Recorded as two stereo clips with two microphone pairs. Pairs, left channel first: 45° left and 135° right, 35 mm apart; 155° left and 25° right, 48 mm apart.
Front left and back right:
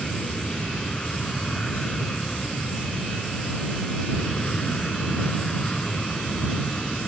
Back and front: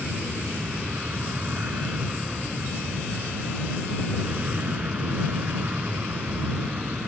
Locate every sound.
0.0 s an aircraft: 5° left; by 7.1 s 10° right